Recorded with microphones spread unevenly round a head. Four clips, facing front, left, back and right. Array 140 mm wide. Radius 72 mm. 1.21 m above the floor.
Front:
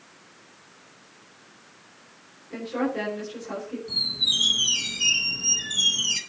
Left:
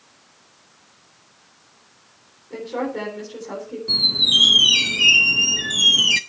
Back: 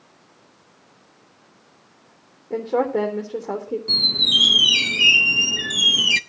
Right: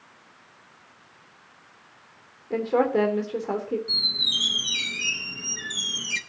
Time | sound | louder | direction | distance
2.5 | a woman speaking | right 5 dB, back 7 dB | 145° right | 3.5 m
3.9 | a squeak | left 8 dB, back 8 dB | 130° left | 0.6 m